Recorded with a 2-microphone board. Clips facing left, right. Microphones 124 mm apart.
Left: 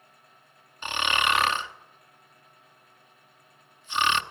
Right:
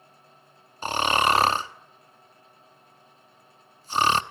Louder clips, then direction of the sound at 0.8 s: Right 5 dB; 35° right (ahead or behind).